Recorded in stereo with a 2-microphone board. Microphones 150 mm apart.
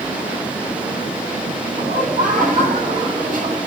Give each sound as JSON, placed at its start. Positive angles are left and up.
{"t": 1.8, "sound": "laughter", "side_deg": -60, "distance_m": 9.5}